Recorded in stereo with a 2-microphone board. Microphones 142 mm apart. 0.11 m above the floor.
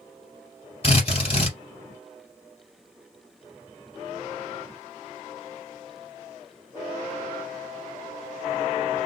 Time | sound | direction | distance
0.8 | a drill | 40° left (ahead or behind) | 2 m